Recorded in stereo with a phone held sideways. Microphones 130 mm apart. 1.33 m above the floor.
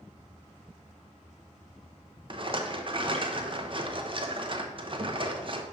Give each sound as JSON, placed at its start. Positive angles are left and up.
{"t": 2.3, "sound": "a rattle", "side_deg": -40, "distance_m": 0.6}